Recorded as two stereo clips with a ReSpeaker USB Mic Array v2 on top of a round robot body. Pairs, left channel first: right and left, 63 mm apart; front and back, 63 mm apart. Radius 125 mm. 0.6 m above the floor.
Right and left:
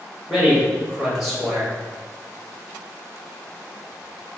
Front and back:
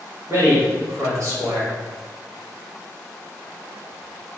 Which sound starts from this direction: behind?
A man speaking, at 0.3 s.